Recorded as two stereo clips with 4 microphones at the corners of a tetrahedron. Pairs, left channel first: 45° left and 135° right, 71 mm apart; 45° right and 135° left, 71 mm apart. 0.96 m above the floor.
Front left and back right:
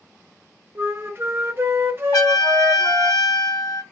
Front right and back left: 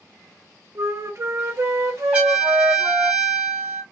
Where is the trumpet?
65° left, 1.4 m.